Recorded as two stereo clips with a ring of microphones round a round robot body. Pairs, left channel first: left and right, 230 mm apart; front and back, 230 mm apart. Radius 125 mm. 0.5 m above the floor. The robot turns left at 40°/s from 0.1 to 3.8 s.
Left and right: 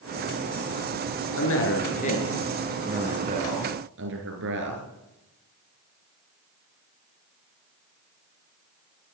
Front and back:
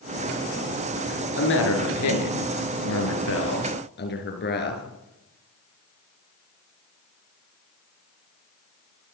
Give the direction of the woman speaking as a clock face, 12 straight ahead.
10 o'clock.